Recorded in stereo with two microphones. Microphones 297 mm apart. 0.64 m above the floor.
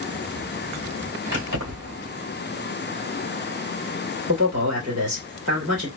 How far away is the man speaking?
About 2.5 m.